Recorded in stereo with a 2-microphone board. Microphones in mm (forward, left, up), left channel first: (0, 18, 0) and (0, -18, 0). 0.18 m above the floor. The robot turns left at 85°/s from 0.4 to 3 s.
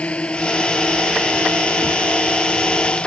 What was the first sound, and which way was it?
A drone, 35° left (ahead or behind).